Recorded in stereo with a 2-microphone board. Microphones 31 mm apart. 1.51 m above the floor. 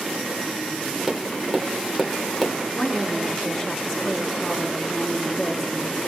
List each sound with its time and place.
1.1 s tapping: 10° left (ahead or behind), 3 m
2.7 s a woman speaking: 40° left (ahead or behind), 1.8 m